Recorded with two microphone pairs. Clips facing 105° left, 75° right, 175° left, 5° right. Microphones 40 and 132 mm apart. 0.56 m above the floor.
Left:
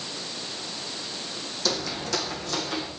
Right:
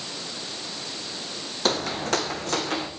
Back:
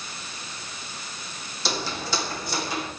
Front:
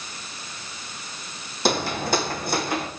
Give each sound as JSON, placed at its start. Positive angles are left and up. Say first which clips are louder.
{"t": 1.6, "sound": "footsteps", "louder": "right 4 dB, front 7 dB", "azimuth_deg": -30, "distance_m": 1.4}